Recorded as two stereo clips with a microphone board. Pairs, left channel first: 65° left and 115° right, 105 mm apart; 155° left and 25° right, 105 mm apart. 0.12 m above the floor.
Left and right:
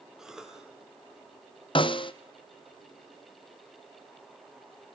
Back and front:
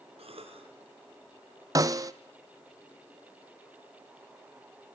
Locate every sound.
0.2 s a cough: 25° right, 4.5 m
1.8 s a snare drum: 35° left, 0.8 m